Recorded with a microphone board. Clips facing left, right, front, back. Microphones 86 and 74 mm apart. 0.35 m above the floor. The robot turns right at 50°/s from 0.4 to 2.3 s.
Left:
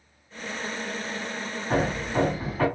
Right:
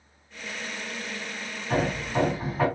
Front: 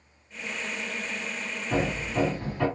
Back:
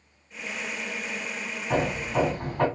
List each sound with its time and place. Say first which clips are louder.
1.7 s hammering: left 1 dB, back 2 dB; 160° left, 1.9 m; by 2.7 s 170° right, 1.9 m